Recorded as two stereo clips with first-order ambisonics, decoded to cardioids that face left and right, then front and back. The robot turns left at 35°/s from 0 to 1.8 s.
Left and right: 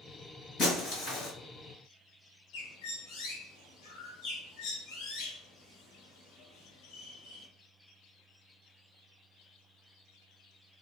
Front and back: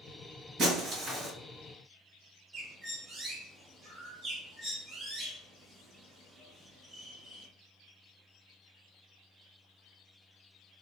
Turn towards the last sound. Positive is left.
turn(degrees=100)